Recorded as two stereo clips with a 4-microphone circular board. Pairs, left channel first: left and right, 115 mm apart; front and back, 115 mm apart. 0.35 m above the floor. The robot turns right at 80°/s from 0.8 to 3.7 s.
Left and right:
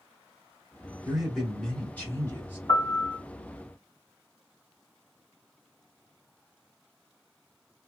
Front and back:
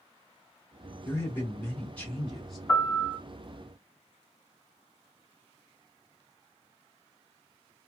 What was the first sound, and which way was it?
A man speaking, 25° right.